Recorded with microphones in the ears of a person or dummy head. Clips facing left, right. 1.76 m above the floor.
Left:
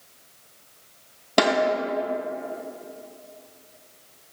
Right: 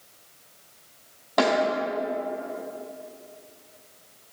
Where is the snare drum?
40° left (ahead or behind), 4 m.